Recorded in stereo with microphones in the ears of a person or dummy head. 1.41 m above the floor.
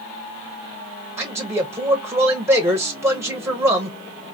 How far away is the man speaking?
About 0.8 m.